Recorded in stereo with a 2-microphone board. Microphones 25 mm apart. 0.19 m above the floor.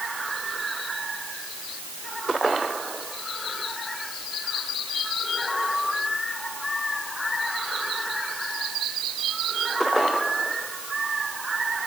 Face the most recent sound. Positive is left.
No sound to turn to.